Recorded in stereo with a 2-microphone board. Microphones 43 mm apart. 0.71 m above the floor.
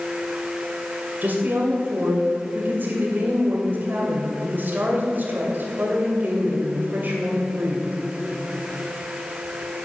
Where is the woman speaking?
45° right (ahead or behind), 2.5 m.